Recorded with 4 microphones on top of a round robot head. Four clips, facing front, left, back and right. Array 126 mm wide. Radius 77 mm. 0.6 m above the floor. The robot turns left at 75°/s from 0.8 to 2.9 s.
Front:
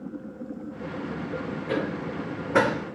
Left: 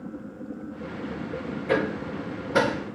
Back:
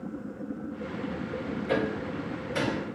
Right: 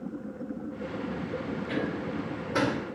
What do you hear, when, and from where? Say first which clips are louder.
1.7 s hammering: left 8 dB, even; 90° left, 2.5 m; by 2.9 s straight ahead, 2.5 m